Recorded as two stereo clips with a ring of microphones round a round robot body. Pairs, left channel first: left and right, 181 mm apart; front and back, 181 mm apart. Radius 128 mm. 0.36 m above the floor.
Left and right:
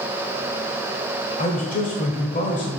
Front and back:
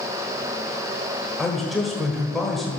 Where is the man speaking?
90° left, 1.8 m.